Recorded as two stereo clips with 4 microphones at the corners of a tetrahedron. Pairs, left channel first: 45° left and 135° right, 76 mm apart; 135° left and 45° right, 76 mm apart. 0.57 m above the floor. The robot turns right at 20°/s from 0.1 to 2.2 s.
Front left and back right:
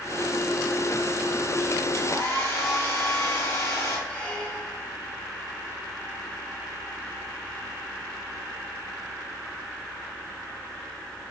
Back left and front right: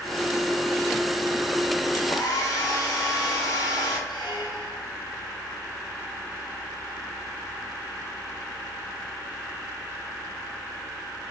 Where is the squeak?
115° left, 3.5 m.